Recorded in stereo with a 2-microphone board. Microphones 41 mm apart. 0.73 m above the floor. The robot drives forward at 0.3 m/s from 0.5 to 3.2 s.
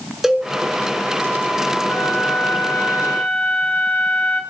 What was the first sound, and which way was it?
A cowbell, 10° right (ahead or behind).